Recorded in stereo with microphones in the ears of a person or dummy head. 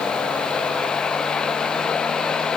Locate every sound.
Only background noise.